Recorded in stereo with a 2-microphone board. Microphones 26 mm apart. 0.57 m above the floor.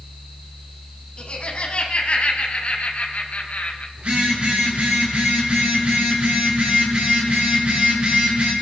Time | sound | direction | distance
1.2 | laughter | 50° left (ahead or behind) | 4 m
4.0 | a phone buzzing | 75° right (ahead or behind) | 6.5 m